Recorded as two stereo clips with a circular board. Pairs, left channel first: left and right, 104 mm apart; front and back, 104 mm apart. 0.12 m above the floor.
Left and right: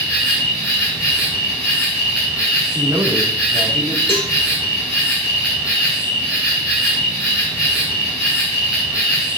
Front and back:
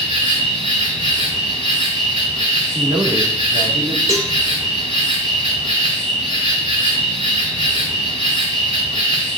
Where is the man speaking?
140° right, 4.5 m.